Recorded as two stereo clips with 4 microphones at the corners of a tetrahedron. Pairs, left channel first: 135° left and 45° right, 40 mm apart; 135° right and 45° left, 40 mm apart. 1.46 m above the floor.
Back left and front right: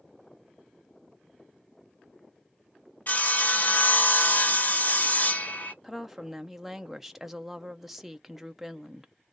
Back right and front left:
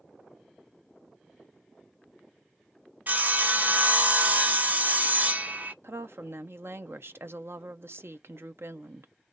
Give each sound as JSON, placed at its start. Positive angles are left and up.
{"t": 3.1, "sound": "sawing", "azimuth_deg": 95, "distance_m": 0.8}
{"t": 5.8, "sound": "a woman speaking", "azimuth_deg": 40, "distance_m": 0.8}